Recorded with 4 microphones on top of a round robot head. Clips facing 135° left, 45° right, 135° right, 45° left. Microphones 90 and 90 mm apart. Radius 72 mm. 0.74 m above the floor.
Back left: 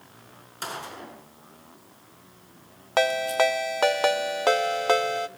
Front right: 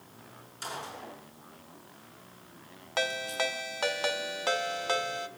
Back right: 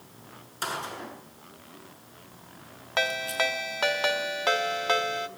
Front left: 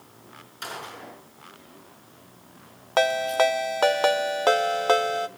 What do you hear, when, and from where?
0.6 s a gunshot: 175° left, 6 m
3.0 s a ringtone: 100° left, 1.1 m